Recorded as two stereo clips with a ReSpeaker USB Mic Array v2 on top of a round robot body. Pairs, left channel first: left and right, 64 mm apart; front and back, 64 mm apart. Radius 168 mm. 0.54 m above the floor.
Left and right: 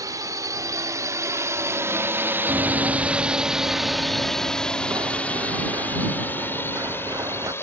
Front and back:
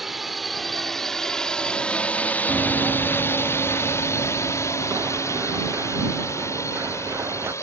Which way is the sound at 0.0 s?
90° right.